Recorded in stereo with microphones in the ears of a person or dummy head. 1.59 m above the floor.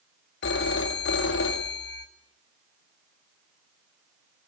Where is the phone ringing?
65° left (ahead or behind), 1.6 m.